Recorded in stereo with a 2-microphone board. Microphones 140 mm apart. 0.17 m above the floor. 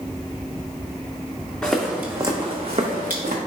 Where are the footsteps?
5° left (ahead or behind), 0.8 m; by 3.4 s 75° right (ahead or behind), 1.0 m.